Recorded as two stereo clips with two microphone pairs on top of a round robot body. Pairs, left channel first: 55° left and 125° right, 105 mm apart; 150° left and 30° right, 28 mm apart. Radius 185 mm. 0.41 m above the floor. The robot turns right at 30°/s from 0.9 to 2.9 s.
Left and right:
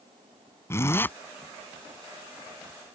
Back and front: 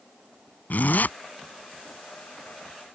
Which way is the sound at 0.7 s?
125° left.